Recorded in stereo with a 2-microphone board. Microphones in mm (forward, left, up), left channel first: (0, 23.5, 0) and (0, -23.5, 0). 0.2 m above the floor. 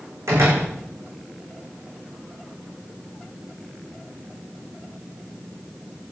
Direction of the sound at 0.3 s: 85° right.